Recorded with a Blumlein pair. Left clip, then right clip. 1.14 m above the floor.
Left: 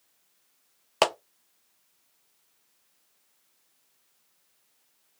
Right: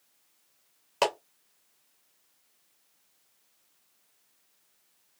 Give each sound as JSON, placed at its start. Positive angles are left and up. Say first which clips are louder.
{"t": 1.0, "sound": "a clap", "louder": "left 3 dB", "azimuth_deg": 65, "distance_m": 0.8}